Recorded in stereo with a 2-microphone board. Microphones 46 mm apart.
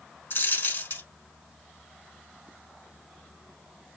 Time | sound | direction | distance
0.3 | a dropped coin | 50° left (ahead or behind) | 0.7 m